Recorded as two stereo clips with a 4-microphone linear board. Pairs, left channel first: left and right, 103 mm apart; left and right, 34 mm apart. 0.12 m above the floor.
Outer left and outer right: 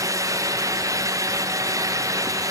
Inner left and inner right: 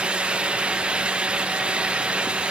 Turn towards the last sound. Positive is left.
No sound to turn to.